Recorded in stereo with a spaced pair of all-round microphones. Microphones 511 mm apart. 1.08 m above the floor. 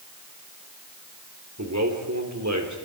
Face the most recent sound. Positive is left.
turn(degrees=-35)  # may be behind; listen again after turning